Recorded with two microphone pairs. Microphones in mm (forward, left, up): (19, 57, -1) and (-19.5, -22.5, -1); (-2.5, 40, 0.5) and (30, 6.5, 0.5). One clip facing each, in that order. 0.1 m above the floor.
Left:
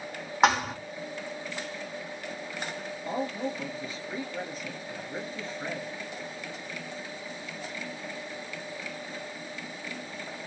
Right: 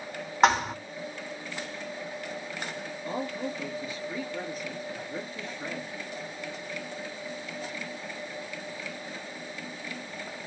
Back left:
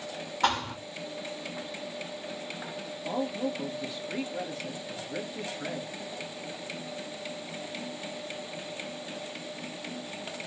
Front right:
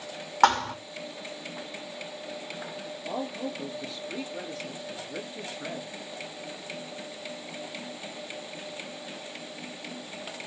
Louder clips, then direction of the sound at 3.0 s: Left 2 dB, back left 3 dB; 85° left.